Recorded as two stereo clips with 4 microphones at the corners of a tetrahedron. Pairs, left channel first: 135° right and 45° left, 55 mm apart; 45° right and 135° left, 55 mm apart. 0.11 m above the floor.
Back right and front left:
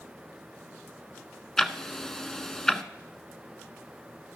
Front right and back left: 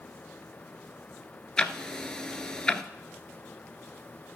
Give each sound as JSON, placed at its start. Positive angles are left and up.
{"t": 1.6, "sound": "ticking", "azimuth_deg": -75, "distance_m": 0.5}